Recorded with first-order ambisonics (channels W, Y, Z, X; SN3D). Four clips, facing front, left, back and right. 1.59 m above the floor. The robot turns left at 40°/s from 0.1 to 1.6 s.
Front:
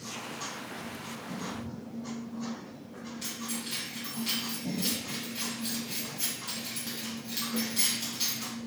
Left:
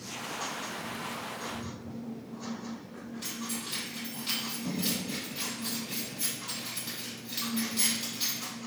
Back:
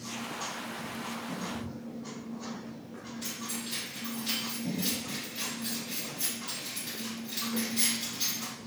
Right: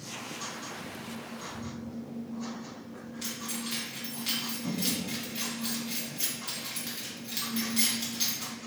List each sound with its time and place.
3.2 s keys jangling: 60° right, 1.7 m